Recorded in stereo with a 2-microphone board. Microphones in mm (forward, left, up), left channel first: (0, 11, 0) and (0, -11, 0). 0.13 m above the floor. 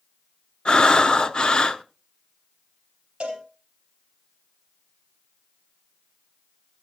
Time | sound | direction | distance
0.7 | breathing | 45° left (ahead or behind) | 0.6 m
3.2 | a cowbell | 50° right (ahead or behind) | 3.5 m